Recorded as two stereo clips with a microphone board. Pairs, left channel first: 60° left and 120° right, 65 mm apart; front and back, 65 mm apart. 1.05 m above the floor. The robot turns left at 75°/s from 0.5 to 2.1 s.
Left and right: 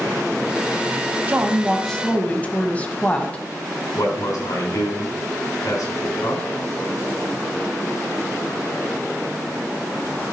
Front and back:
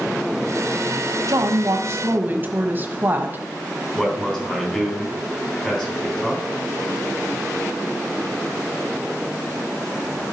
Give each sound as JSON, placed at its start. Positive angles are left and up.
{"t": 1.3, "sound": "a woman speaking", "azimuth_deg": -175, "distance_m": 1.3}
{"t": 4.0, "sound": "a man speaking", "azimuth_deg": 75, "distance_m": 3.5}